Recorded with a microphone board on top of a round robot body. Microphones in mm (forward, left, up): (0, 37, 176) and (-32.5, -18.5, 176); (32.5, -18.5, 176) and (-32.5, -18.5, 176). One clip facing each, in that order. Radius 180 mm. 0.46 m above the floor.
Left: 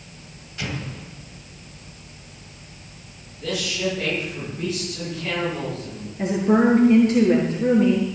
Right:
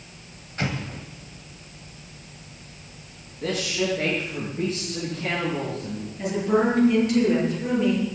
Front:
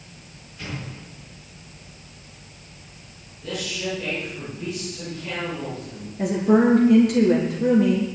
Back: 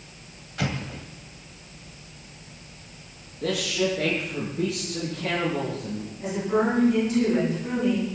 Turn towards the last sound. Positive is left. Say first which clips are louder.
# left 4 dB, front 6 dB
turn(degrees=0)